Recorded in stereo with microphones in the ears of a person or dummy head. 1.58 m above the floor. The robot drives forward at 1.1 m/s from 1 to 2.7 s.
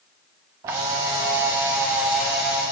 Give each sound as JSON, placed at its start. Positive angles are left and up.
{"t": 0.6, "sound": "a camera shutter", "side_deg": -15, "distance_m": 0.8}